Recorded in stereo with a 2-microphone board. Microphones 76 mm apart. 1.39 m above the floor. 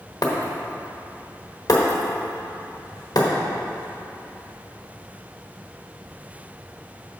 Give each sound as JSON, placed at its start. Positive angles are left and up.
{"t": 0.2, "sound": "breaking glass", "side_deg": 60, "distance_m": 1.1}